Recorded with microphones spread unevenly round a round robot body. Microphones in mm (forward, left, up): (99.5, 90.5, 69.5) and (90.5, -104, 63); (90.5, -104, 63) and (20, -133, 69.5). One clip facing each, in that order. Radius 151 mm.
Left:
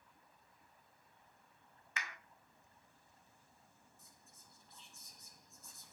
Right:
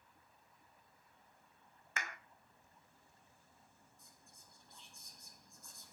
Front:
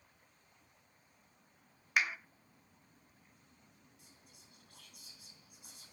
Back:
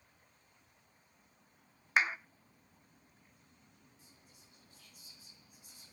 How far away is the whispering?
About 5.5 m.